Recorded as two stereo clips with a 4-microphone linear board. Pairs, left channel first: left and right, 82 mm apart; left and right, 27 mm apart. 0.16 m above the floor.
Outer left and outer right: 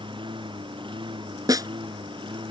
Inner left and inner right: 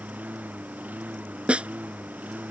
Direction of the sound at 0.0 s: 75° right (ahead or behind).